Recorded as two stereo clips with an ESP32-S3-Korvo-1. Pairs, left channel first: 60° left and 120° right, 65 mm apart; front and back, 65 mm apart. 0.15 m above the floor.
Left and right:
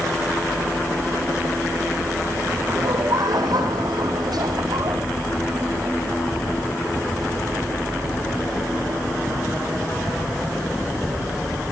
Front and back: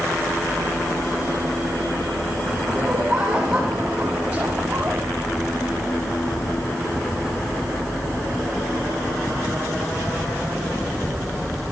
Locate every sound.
2.7 s laughter: 100° right, 9 m; by 5.0 s 110° right, 7.5 m